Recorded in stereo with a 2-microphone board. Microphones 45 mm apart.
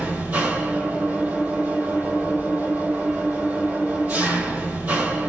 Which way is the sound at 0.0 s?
40° right (ahead or behind).